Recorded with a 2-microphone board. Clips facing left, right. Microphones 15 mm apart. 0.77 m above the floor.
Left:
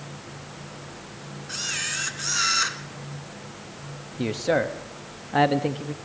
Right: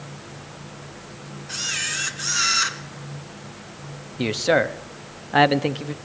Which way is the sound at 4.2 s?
35° right (ahead or behind).